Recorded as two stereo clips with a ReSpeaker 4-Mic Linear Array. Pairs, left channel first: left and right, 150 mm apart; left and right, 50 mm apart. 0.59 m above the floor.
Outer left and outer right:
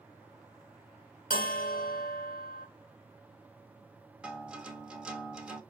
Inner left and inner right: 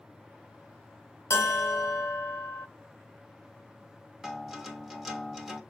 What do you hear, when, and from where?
1.3 s a bell: 70° left (ahead or behind), 1.3 m
4.2 s a guitar: 5° right (ahead or behind), 1.4 m